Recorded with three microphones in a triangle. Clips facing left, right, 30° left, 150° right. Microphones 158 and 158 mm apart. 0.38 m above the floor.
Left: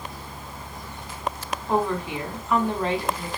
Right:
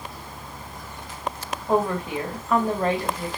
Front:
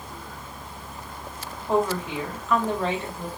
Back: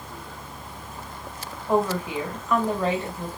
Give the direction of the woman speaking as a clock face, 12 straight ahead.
2 o'clock.